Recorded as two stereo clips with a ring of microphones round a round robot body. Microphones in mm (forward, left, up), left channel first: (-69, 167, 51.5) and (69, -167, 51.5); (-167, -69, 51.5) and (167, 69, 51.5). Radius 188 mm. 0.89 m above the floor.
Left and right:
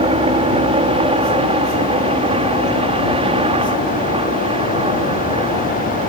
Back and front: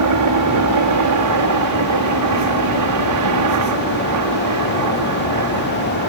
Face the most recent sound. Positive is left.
turn(degrees=5)